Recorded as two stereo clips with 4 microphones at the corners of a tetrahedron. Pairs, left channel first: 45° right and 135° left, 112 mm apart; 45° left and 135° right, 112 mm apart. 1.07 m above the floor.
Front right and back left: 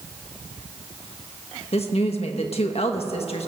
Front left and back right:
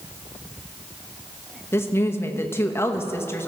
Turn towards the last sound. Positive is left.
turn(degrees=-25)